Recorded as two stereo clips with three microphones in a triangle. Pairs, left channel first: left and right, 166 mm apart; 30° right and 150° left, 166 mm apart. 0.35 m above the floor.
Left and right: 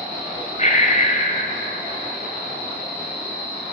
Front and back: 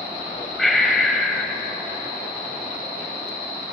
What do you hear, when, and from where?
0.6 s breathing: 60° left, 1.9 m